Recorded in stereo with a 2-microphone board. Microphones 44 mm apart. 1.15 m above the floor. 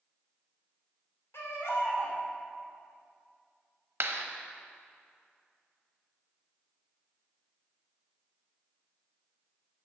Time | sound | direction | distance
1.3 | a baby crying | 80° left | 2.5 m
4.0 | a clap | 60° right (ahead or behind) | 0.9 m